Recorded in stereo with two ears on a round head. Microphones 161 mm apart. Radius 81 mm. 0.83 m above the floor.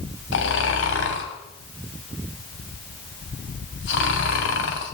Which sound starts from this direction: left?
Snoring, at 0.3 s.